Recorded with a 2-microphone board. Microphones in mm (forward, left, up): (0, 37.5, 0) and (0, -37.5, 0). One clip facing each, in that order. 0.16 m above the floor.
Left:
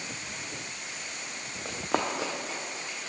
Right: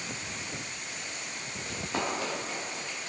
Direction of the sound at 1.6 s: 65° left (ahead or behind).